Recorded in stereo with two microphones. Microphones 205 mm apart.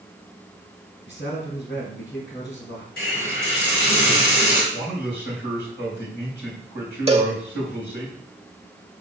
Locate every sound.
1.1 s a man speaking: 65° left (ahead or behind), 4 m
3.0 s a hiss: 55° left (ahead or behind), 4 m
4.7 s a man speaking: 65° left (ahead or behind), 3 m
7.1 s a cowbell: 30° right (ahead or behind), 0.7 m